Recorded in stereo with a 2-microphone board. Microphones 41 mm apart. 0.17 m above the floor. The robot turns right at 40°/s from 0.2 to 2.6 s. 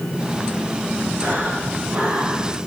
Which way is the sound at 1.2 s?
125° right.